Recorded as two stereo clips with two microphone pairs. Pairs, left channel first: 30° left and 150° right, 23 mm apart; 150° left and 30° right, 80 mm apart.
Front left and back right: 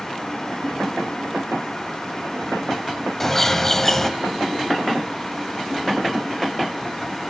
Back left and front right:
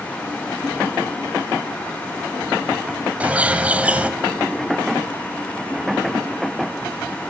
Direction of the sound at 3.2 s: Straight ahead.